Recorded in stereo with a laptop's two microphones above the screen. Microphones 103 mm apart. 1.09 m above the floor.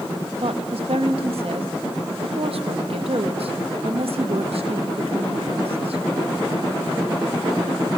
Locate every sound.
0.4 s a woman speaking: 70° right (ahead or behind), 1.3 m